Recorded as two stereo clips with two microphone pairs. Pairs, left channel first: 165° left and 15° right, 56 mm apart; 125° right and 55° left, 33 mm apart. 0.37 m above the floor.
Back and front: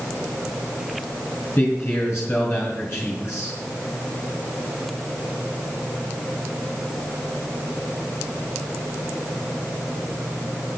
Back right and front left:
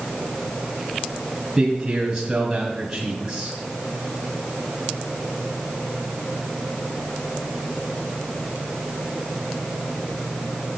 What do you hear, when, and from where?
1.6 s a man speaking: 125° left, 2.5 m